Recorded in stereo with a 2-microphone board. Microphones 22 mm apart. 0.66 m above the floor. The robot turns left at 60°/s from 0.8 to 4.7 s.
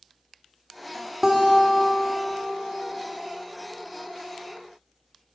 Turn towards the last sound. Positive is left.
turn(degrees=-5)